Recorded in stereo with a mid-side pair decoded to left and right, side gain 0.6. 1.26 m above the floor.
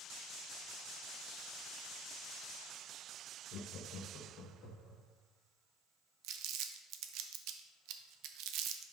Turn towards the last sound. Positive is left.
turn(degrees=-70)